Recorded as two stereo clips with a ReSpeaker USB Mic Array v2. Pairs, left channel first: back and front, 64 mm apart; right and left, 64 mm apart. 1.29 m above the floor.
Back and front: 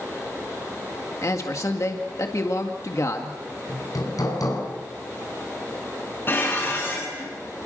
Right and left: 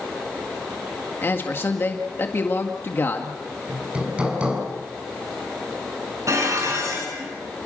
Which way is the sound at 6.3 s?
125° left.